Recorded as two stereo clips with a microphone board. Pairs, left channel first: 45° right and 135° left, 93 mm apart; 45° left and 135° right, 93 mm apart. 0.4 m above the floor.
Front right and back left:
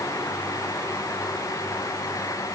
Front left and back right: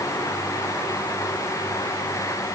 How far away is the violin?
I don't hear a violin.